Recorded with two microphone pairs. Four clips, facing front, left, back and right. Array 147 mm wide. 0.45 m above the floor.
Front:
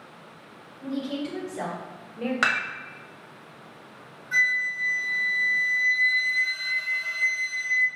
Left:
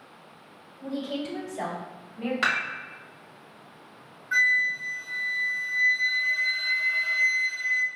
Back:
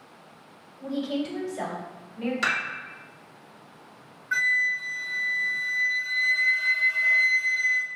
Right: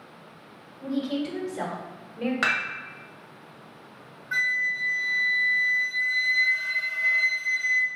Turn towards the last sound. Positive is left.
turn(degrees=-175)